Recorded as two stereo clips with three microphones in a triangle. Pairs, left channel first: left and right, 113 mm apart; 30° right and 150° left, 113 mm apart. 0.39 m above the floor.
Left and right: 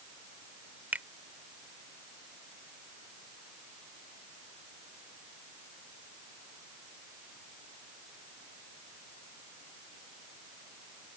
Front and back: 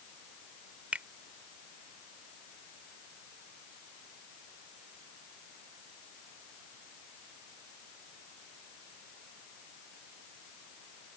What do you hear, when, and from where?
0.9 s a finger snap: 145° right